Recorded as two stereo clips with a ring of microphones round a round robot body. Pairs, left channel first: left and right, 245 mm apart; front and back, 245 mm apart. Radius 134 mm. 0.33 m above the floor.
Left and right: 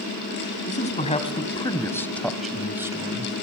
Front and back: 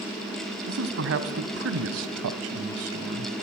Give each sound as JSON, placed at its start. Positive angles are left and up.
{"t": 0.7, "sound": "a man speaking", "azimuth_deg": 145, "distance_m": 2.0}